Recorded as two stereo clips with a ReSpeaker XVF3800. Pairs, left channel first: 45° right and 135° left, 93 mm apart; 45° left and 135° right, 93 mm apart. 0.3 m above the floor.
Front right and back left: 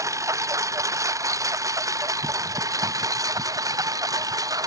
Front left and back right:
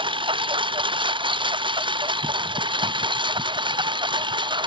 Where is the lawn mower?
165° right; by 4.7 s 170° right.